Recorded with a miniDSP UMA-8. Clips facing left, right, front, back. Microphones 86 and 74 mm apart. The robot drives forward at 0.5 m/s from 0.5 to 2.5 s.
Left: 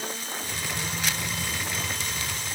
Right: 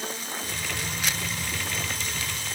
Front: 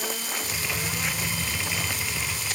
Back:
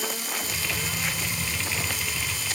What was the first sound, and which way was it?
Only background noise.